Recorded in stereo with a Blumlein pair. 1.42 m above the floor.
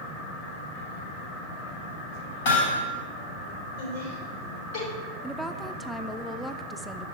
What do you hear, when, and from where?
2.5 s hammering: 55° left, 5.5 m
3.8 s laughter: 55° left, 5.5 m
5.2 s a woman speaking: straight ahead, 0.7 m